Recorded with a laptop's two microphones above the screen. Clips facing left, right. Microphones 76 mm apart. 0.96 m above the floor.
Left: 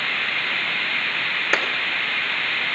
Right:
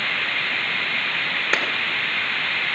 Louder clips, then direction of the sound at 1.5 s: Left 1 dB; 5° left (ahead or behind).